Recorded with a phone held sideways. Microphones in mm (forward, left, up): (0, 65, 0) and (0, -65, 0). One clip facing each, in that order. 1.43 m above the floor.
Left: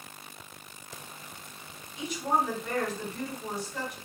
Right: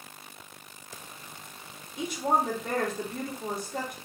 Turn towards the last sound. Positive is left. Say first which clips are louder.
# right 2 dB
turn(degrees=-50)  # may be behind; listen again after turning